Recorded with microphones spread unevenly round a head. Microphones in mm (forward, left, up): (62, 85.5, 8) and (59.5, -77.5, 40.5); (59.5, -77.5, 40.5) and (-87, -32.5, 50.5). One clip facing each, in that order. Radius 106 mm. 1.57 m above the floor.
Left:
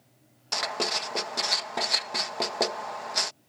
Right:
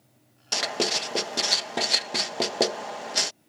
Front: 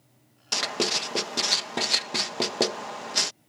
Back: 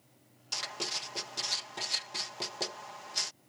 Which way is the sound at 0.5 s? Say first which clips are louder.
Right 3 dB, front 13 dB; 35° right.